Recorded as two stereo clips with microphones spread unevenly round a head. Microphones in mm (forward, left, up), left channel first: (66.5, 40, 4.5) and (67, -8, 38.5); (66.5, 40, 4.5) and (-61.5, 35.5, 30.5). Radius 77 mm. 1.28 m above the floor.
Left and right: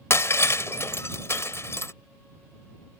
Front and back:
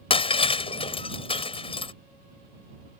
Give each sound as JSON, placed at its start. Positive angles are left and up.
{"t": 0.1, "sound": "breaking glass", "azimuth_deg": 50}